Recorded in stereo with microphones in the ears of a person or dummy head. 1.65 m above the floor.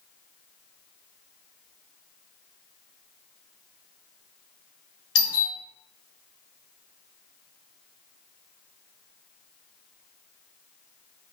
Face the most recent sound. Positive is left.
turn(degrees=65)  # may be behind; listen again after turning